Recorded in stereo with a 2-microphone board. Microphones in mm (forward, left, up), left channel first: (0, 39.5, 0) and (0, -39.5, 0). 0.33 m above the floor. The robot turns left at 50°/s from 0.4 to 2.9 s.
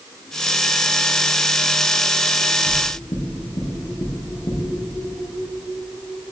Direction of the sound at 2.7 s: 80° left.